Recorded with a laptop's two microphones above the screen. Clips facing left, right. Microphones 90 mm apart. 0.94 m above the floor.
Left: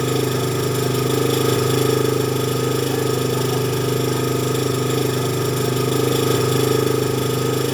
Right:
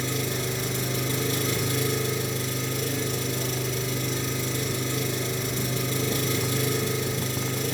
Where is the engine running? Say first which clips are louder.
Left 10 dB; 65° left (ahead or behind), 2.0 m.